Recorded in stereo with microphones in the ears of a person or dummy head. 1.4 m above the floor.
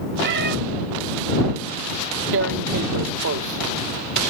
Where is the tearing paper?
60° right (ahead or behind).